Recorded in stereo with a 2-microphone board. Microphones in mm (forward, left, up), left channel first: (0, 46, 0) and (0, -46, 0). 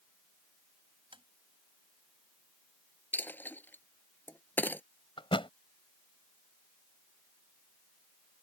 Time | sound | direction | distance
1.1 | tapping | 70° right (ahead or behind) | ?
3.1 | a dropped coin | 20° left (ahead or behind) | ?
5.2 | a thud | 70° left (ahead or behind) | ?